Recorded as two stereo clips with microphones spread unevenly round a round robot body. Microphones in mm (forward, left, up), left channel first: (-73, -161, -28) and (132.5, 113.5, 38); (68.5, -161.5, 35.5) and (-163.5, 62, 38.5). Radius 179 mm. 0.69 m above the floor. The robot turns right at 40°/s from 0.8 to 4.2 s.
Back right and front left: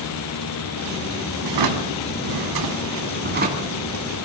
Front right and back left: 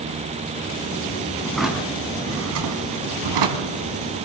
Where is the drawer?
40° left, 2.5 m; by 3.8 s 130° left, 2.5 m.